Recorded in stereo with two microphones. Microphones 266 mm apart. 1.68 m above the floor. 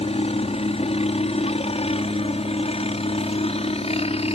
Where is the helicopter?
20° left (ahead or behind).